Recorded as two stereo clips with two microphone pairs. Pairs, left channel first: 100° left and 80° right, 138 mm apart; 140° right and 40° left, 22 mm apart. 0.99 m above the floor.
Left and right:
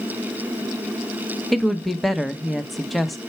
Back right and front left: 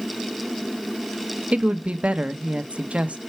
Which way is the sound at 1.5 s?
15° left.